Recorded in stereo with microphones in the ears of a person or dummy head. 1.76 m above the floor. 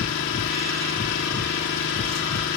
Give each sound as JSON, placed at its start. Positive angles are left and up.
{"t": 0.0, "sound": "an engine running", "side_deg": 65, "distance_m": 3.5}